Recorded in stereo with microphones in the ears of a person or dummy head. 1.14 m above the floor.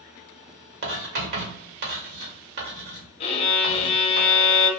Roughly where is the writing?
Right.